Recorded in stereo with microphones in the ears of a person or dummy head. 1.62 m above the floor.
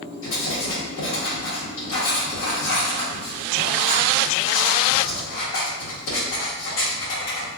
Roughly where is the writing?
Left.